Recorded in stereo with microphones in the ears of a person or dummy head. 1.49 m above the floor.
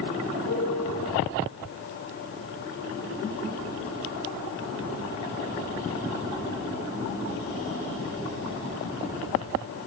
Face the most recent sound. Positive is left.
turn(degrees=70)  # may be behind; listen again after turning